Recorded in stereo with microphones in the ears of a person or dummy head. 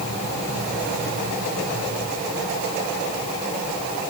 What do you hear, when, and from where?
Only background noise.